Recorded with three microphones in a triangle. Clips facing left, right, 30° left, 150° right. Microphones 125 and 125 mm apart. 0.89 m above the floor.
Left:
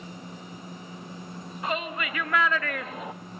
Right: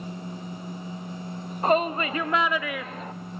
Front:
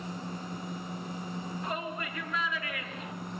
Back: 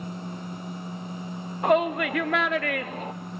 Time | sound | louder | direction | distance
1.6 | a shout | right 9 dB, back 18 dB | 135° right | 1.3 m